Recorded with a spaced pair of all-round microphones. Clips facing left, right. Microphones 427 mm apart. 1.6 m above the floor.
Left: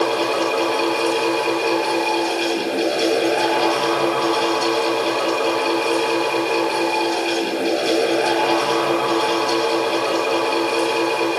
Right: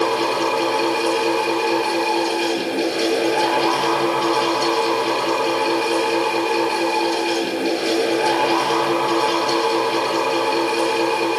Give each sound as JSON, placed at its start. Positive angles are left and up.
{"t": 0.0, "sound": "a fan", "side_deg": -10, "distance_m": 4.5}